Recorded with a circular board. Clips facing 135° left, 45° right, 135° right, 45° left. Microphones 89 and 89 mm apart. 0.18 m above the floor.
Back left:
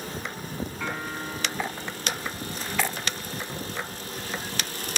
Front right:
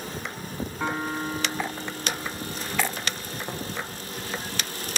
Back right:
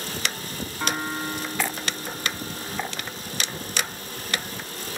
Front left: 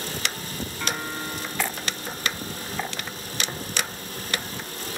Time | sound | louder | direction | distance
0.8 | a piano | front right 8 dB, back right 4 dB | 90° right | 1.2 m
3.5 | tapping | front right 3 dB, front left 1 dB | 20° right | 3.5 m